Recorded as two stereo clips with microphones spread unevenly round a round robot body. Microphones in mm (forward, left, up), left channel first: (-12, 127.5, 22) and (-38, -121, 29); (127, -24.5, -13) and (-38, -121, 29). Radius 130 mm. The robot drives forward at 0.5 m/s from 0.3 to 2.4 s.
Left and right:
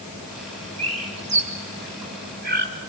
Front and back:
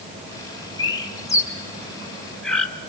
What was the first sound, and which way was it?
A bird, 30° right.